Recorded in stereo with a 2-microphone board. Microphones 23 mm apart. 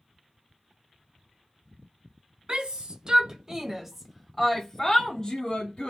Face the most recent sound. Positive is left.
turn(degrees=45)  # may be behind; listen again after turning